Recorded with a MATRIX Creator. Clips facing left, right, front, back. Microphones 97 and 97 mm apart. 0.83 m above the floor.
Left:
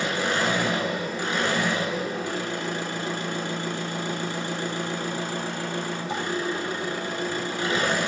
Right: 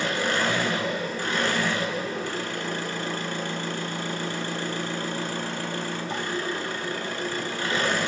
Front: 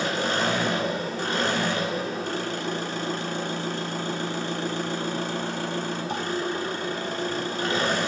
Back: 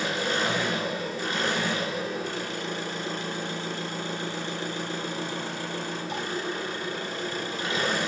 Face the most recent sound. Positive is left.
turn(degrees=15)